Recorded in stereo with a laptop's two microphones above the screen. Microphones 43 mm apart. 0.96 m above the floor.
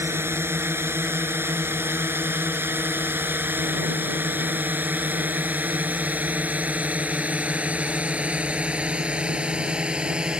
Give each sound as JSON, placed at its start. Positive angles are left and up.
{"t": 0.0, "sound": "a drone", "side_deg": -75}